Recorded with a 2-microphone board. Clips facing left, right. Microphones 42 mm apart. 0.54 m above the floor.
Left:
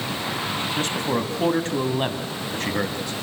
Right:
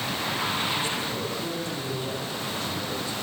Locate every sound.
0.8 s a man speaking: 65° left (ahead or behind), 3.5 m